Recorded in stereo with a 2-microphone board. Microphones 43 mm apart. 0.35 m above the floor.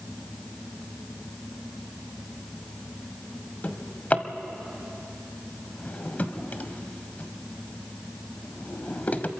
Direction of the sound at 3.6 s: 35° left (ahead or behind).